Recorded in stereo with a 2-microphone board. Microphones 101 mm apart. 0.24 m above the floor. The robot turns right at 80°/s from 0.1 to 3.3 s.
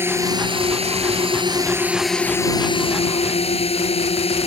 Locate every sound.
0.0 s a drone: 155° right; by 4.5 s 100° left